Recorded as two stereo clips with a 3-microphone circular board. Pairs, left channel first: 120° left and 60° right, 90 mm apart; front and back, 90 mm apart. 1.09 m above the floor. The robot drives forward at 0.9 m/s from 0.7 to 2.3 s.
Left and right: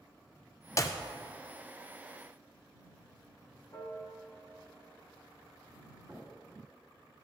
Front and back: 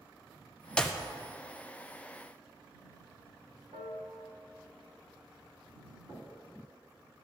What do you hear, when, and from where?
0.8 s a clap: 75° left, 0.5 m; by 1.0 s 105° left, 0.5 m
3.7 s a piano: 170° left, 1.2 m
6.1 s knocking: 130° right, 1.7 m